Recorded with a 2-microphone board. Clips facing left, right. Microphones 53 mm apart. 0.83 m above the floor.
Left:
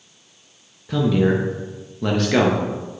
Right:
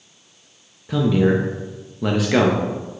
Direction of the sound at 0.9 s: 10° right (ahead or behind).